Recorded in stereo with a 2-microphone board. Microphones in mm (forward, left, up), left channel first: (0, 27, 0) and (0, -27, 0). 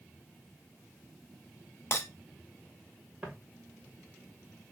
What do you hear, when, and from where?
1.9 s breaking glass: 45° left (ahead or behind), 1.1 m
3.2 s footsteps: 15° right (ahead or behind), 2.5 m